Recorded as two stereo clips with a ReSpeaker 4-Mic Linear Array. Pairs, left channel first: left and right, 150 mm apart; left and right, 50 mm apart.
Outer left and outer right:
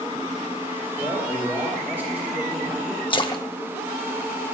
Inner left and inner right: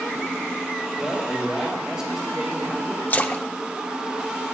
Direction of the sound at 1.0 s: 15° right (ahead or behind).